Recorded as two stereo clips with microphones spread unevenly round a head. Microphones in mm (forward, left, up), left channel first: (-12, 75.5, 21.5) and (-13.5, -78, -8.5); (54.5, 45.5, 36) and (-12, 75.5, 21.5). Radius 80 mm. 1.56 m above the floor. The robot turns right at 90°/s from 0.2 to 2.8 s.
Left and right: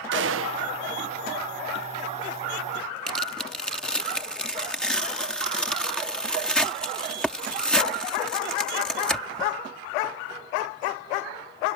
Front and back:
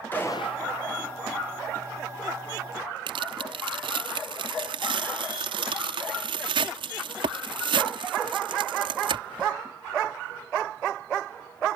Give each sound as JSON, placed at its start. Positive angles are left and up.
{"t": 0.1, "sound": "a gunshot", "azimuth_deg": -100}
{"t": 3.1, "sound": "tearing paper", "azimuth_deg": 175}